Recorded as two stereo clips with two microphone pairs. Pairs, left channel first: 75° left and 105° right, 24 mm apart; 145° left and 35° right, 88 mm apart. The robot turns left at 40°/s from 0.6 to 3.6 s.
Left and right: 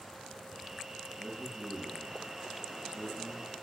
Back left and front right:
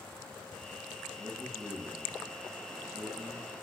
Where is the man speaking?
35° right, 4.5 m; by 3.6 s 130° right, 4.5 m.